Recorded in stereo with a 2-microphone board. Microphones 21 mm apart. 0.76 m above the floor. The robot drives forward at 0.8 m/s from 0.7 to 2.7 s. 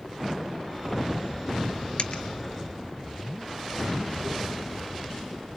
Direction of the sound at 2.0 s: 60° left (ahead or behind).